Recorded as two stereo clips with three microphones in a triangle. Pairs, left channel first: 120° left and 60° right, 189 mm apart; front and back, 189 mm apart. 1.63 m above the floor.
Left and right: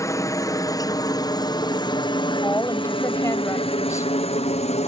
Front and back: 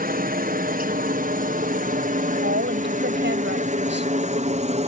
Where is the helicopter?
170° right; by 4.9 s 150° left.